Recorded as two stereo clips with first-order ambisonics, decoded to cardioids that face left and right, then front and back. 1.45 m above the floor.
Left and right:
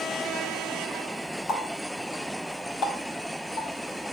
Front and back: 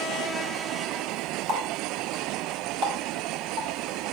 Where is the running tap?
135° left, 1.5 m.